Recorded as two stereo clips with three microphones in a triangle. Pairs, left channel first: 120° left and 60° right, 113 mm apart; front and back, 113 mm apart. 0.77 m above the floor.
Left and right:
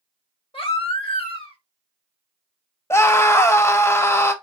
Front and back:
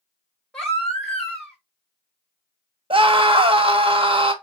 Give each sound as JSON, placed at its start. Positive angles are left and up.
{"t": 0.5, "sound": "a baby crying", "azimuth_deg": 85, "distance_m": 1.4}
{"t": 2.9, "sound": "a scream", "azimuth_deg": 180, "distance_m": 0.7}